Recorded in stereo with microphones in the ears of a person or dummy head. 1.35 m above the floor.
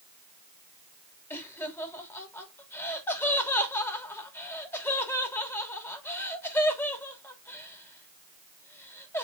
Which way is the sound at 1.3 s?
15° left (ahead or behind).